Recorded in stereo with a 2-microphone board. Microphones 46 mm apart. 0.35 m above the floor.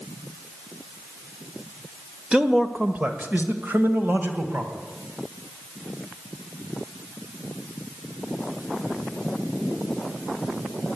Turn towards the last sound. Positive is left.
turn(degrees=-55)  # may be behind; listen again after turning